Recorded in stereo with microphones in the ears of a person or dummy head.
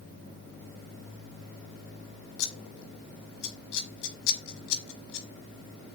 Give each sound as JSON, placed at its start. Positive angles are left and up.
{"t": 2.4, "sound": "scissors", "side_deg": 70, "distance_m": 0.9}